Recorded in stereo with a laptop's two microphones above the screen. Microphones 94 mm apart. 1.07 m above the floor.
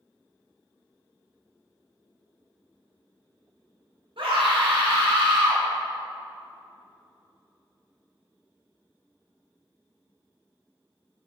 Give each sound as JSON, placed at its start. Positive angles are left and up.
{"t": 4.2, "sound": "a scream", "side_deg": -85, "distance_m": 2.0}